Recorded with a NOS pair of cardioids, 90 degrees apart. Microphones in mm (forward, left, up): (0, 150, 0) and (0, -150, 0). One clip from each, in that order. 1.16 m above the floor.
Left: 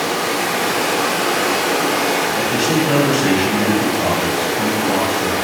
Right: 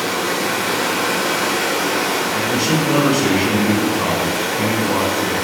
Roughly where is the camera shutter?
I don't hear a camera shutter.